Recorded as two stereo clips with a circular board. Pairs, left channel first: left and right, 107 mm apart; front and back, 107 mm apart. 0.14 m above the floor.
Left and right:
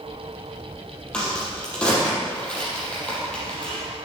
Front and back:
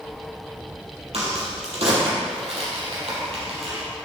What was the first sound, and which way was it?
A crack, 170° left.